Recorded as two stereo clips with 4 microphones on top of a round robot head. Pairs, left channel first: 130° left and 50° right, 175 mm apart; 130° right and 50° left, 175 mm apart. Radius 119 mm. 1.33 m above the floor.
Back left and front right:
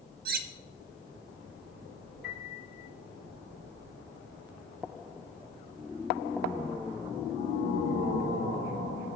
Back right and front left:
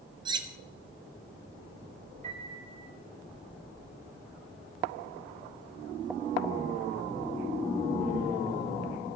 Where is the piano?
100° left, 5 m.